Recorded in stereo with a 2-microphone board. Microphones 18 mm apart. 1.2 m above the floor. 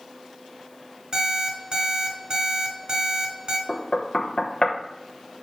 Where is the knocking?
60° left (ahead or behind), 0.9 m.